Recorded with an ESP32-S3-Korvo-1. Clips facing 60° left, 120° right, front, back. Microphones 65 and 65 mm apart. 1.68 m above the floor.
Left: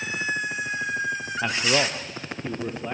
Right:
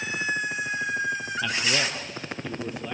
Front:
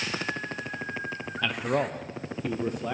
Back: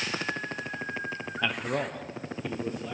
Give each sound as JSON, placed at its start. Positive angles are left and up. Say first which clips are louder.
{"t": 1.4, "sound": "a man speaking", "louder": "left 5 dB, front 3 dB", "azimuth_deg": 105, "distance_m": 0.6}